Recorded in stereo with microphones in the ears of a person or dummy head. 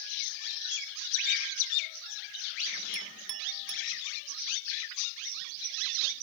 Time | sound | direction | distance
2.9 | a clink | 55° right (ahead or behind) | 0.6 m